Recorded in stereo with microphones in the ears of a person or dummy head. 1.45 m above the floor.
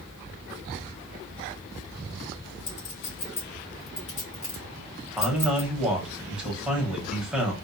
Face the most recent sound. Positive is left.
turn(degrees=-5)  # may be behind; listen again after turning